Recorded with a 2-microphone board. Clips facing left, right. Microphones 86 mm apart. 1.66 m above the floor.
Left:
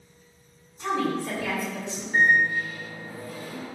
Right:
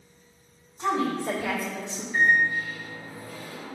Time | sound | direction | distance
0.8 | a woman speaking | 35° right (ahead or behind) | 2.5 m
2.1 | a microwave | 70° left (ahead or behind) | 3 m